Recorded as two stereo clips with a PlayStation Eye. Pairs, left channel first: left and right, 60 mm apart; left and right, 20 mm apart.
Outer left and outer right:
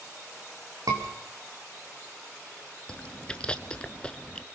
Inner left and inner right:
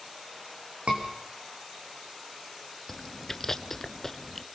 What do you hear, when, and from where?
0.9 s a scream: 80° right, 8 m
2.9 s chewing: 20° left (ahead or behind), 1.0 m